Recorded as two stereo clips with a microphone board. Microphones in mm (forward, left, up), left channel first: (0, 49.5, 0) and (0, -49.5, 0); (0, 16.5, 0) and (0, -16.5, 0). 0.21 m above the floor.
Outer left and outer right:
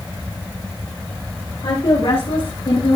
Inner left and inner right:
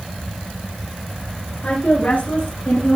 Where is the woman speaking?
60° left (ahead or behind), 3.5 m; by 3.0 s 65° left (ahead or behind), 3 m.